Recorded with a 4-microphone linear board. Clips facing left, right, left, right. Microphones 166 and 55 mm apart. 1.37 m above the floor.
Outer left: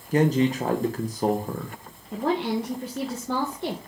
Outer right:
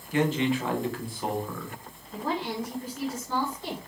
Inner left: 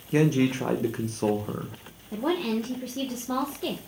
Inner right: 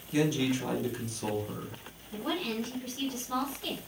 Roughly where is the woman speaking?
Left.